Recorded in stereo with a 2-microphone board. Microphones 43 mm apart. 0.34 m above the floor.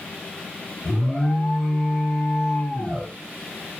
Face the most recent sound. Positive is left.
turn(degrees=10)  # may be behind; listen again after turning